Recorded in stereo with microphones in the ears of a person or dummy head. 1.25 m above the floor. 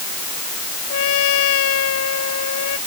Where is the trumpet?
75° left (ahead or behind).